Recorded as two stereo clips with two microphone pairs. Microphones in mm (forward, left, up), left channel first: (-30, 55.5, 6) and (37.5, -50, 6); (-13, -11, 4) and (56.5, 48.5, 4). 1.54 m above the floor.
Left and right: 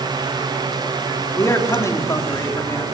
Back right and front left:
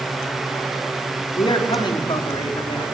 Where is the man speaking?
170° right, 4.5 m.